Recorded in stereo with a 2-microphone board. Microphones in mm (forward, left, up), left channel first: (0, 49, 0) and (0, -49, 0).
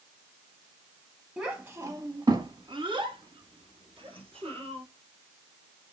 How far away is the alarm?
I don't hear an alarm.